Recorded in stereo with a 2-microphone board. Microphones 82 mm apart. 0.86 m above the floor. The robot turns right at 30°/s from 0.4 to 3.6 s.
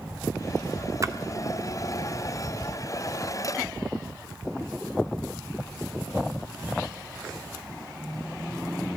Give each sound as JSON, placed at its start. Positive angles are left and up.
{"t": 1.0, "sound": "a splash", "side_deg": -40, "distance_m": 0.7}